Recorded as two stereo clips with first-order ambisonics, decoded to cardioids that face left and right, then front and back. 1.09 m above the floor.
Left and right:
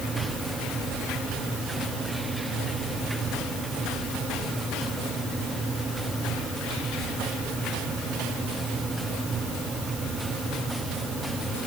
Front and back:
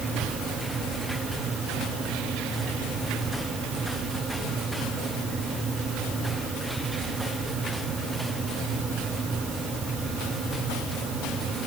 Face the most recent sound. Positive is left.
No sound to turn to.